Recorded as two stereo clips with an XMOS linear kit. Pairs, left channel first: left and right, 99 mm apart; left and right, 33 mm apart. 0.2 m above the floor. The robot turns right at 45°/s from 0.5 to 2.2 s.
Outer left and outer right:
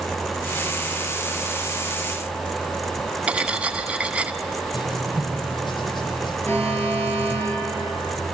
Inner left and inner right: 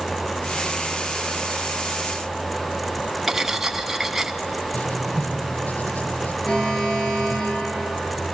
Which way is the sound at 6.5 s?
25° left (ahead or behind).